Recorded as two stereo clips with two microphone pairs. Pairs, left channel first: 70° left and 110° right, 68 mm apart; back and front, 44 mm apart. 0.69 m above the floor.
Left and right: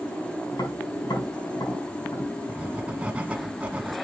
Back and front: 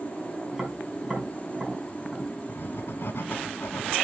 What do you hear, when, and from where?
0.5 s tapping: 75° left, 5 m
2.5 s writing: straight behind, 1.2 m